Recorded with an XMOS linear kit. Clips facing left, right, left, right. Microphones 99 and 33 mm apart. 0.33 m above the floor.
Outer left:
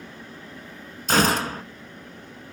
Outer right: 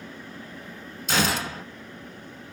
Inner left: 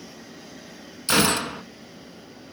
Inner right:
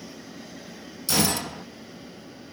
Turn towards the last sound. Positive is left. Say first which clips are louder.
# outer left 5 dB, inner left 4 dB
turn(degrees=45)  # may be behind; listen again after turning